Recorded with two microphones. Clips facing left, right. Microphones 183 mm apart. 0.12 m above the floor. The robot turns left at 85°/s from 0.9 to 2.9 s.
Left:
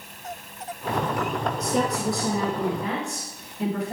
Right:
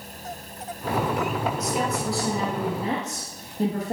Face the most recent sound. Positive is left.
turn(degrees=-45)